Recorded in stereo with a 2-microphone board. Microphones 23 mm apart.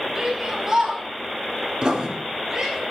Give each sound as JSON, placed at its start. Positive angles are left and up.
{"t": 0.1, "sound": "a shout", "side_deg": -10, "distance_m": 9.0}
{"t": 1.8, "sound": "writing", "side_deg": -35, "distance_m": 4.0}